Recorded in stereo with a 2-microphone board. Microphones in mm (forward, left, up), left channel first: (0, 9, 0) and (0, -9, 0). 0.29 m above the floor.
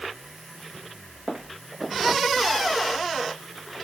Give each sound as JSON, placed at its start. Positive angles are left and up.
{"t": 1.3, "sound": "footsteps", "side_deg": -80, "distance_m": 4.0}